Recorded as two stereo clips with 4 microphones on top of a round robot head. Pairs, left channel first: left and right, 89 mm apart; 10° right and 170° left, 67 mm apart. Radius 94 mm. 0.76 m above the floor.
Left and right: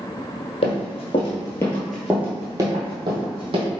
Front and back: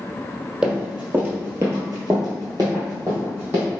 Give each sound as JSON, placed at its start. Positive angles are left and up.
{"t": 0.6, "sound": "running footsteps", "azimuth_deg": 95, "distance_m": 1.3}